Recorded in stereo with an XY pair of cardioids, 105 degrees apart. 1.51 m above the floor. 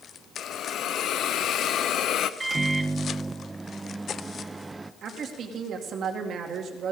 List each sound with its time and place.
0.4 s a hiss: 70° left, 0.7 m
2.4 s a microwave: 20° right, 0.5 m
5.0 s a woman speaking: 60° right, 2.5 m